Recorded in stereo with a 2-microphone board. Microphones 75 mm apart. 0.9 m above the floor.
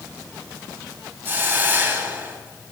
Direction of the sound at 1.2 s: 30° right (ahead or behind).